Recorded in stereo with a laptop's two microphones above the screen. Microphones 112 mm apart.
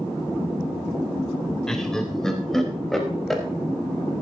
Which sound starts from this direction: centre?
Laughter, at 1.7 s.